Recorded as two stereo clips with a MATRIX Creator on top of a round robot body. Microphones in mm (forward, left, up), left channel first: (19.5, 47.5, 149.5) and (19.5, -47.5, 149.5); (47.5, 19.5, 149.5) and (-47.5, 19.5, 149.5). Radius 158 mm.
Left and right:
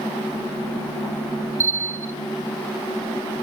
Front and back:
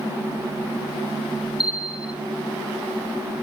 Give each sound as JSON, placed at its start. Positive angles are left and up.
{"t": 1.6, "sound": "a bell", "azimuth_deg": -115, "distance_m": 1.0}